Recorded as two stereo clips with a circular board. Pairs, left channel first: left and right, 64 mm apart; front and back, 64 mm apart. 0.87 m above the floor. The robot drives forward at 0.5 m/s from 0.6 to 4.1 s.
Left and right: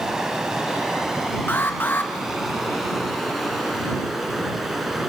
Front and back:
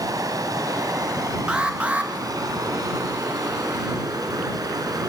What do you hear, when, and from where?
0.0 s running water: 170° right, 2 m; by 5.1 s 175° right, 4 m
1.5 s an alarm: 115° left, 1.9 m; by 2.1 s 130° left, 2 m